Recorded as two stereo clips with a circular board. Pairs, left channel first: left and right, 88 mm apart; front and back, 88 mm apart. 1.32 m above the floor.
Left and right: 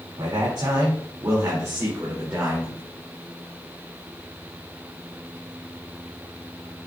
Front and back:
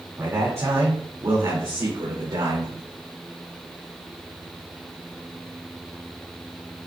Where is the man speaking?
120° right, 2.5 m; by 2.8 s 155° right, 3 m.